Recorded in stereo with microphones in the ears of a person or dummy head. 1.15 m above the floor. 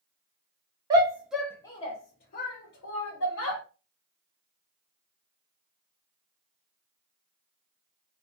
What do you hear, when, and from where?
0.9 s a shout: 20° right (ahead or behind), 0.7 m; by 3.6 s 70° left (ahead or behind), 1.3 m